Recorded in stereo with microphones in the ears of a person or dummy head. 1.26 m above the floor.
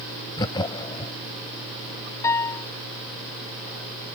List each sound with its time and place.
0.4 s laughter: 25° left (ahead or behind)
2.2 s a piano: 20° left (ahead or behind)